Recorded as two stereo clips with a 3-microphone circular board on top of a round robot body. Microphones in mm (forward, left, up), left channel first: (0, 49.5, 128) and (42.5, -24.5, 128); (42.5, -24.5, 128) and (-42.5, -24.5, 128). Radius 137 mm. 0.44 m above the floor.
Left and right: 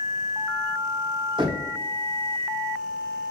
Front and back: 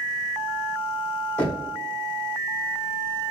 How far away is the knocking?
About 1.8 m.